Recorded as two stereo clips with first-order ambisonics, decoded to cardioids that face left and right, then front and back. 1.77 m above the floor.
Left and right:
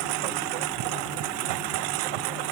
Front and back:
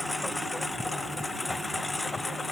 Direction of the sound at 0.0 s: 85° right.